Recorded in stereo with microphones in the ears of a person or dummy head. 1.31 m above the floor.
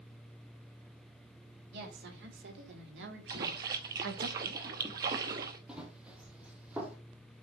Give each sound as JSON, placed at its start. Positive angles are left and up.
{"t": 1.7, "sound": "a woman speaking", "side_deg": -75, "distance_m": 4.5}
{"t": 3.3, "sound": "a splash", "side_deg": -20, "distance_m": 0.8}
{"t": 5.7, "sound": "running footsteps", "side_deg": -10, "distance_m": 2.5}